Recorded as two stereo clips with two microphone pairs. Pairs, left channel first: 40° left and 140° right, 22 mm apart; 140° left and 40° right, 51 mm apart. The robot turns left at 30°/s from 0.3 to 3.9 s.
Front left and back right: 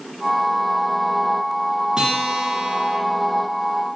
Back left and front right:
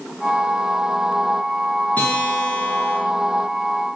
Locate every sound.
2.0 s a guitar: 175° right, 2 m; by 3.0 s 155° left, 2 m